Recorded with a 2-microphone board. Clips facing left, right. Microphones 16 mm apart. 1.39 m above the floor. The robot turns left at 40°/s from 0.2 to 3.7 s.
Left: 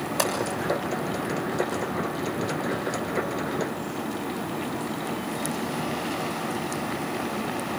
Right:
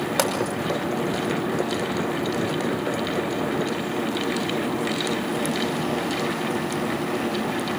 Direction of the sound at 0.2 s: 80° right.